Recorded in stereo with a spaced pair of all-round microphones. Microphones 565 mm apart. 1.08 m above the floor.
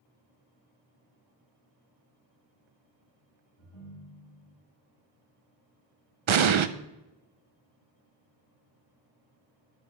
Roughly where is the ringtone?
Left.